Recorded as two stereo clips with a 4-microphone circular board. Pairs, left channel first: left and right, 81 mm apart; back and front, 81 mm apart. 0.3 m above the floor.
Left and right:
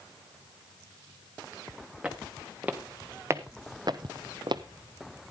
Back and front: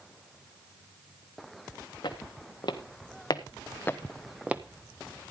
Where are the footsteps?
170° right, 1.8 m; by 4.6 s 65° right, 0.7 m.